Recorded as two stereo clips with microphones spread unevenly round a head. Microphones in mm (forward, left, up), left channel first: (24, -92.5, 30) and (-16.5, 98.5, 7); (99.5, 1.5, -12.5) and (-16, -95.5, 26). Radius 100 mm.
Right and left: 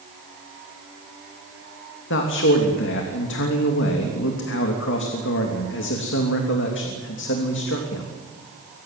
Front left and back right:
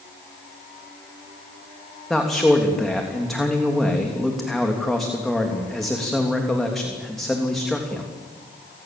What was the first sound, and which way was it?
A man speaking, 45° right.